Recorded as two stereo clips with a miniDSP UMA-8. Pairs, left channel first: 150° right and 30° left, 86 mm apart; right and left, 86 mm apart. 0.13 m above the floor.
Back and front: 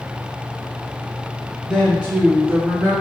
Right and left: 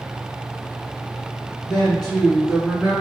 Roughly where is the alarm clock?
I don't hear an alarm clock.